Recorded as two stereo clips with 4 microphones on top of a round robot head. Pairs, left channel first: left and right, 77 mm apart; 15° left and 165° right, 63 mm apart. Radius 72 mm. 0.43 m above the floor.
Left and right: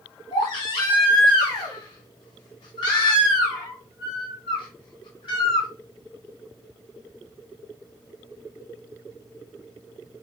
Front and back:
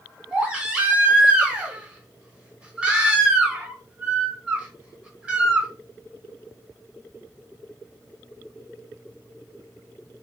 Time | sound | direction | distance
0.3 | a baby crying | 120° left | 1.4 m